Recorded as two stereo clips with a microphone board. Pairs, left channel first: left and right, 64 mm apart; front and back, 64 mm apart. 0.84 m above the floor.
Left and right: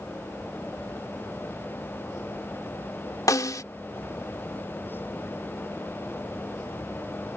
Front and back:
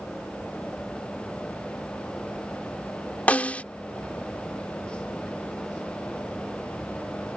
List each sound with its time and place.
3.3 s a snare drum: 65° left